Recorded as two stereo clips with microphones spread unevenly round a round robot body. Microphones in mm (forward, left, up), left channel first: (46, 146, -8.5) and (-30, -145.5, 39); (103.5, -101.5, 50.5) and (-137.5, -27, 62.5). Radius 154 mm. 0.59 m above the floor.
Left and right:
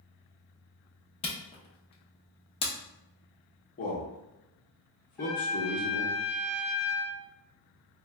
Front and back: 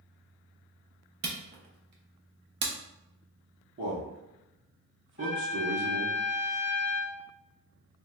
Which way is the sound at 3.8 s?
125° left.